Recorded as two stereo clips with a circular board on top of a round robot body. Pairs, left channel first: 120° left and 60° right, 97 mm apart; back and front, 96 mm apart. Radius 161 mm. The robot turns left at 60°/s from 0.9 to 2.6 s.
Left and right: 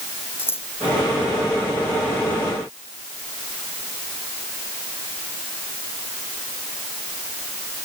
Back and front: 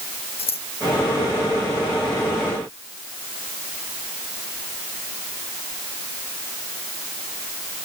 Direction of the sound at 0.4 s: 175° right.